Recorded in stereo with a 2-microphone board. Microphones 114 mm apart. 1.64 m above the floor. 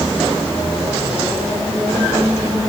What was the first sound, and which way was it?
Only background noise.